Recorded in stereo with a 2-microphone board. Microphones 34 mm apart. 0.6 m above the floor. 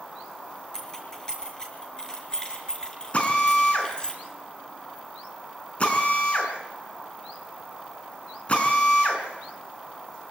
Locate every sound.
0.7 s keys jangling: 20° left (ahead or behind), 7 m; by 4.1 s 25° left (ahead or behind), 5.5 m
3.1 s a drill: 40° left (ahead or behind), 5 m